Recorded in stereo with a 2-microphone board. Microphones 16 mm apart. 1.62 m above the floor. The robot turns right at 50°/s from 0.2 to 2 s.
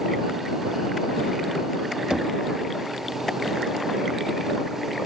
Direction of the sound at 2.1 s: 55° right (ahead or behind).